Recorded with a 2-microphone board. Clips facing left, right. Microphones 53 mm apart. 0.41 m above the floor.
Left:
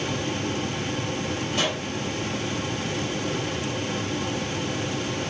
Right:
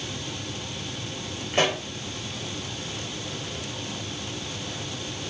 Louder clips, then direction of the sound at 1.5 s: Right 5 dB; 40° right (ahead or behind).